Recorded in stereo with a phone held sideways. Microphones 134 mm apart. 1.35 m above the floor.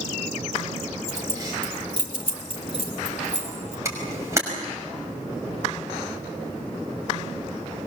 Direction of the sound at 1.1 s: 25° right (ahead or behind).